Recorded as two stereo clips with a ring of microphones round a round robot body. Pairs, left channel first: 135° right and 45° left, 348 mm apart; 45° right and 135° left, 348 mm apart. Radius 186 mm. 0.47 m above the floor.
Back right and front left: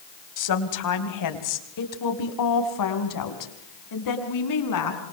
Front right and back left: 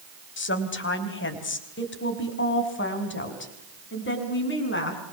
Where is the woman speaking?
100° right, 3.5 m; by 5.0 s 105° right, 6 m.